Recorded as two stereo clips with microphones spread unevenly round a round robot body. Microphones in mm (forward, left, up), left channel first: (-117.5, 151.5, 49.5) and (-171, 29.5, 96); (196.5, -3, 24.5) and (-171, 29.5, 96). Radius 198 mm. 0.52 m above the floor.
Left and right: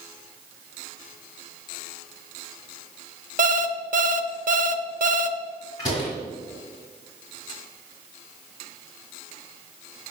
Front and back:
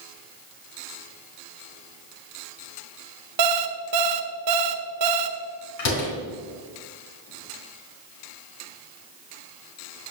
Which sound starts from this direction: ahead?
A door slam, at 5.8 s.